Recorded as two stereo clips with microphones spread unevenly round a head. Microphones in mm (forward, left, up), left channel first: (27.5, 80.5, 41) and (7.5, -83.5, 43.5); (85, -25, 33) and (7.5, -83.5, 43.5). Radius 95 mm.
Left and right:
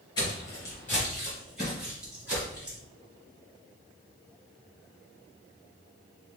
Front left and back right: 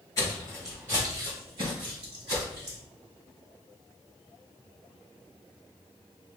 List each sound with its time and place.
0.2 s footsteps: 55° left, 1.2 m; by 2.8 s straight behind, 3.5 m